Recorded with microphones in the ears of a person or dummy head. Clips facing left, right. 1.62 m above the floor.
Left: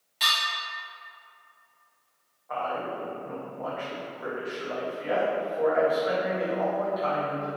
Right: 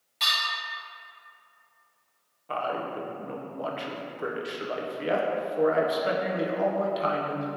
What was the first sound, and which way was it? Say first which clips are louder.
Dishes clattering: left 2 dB; 10° left (ahead or behind).